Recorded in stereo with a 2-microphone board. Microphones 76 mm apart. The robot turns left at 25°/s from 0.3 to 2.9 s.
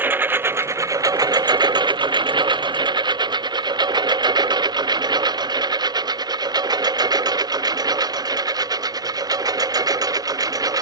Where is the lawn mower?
25° right (ahead or behind); by 10.8 s 55° right (ahead or behind).